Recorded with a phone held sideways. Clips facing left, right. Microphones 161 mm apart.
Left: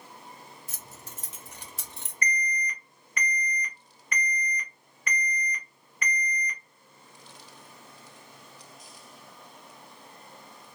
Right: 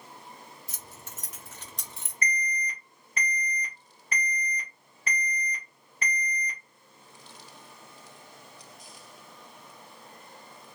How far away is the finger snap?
I don't hear a finger snap.